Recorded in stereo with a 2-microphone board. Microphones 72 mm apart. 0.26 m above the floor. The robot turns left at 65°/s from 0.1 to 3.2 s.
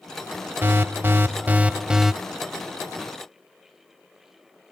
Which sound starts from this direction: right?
An alarm, at 0.6 s.